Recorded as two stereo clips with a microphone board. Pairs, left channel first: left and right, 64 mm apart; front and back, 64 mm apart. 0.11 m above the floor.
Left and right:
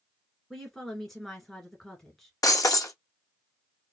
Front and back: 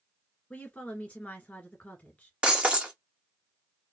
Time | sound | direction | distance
0.5 | a woman speaking | 5° left | 1.6 m
2.4 | breaking glass | 110° left | 0.5 m